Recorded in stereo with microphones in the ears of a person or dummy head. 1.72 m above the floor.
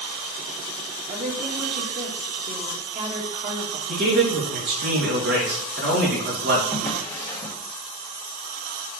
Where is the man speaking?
65° right (ahead or behind), 3 m.